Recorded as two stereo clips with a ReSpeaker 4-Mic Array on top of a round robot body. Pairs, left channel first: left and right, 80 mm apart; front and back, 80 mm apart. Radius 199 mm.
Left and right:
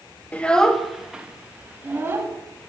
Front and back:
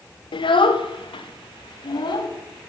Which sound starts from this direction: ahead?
A child speaking, at 0.3 s.